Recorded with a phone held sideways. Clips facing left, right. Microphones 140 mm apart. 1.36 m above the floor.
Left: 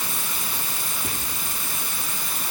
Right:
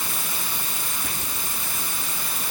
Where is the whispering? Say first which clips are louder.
Left 4 dB; 15° left (ahead or behind), 3.5 m.